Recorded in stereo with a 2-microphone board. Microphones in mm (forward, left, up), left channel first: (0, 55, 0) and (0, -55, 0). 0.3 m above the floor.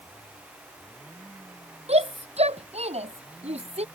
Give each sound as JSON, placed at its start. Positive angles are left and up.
{"t": 1.9, "sound": "a shout", "side_deg": -80}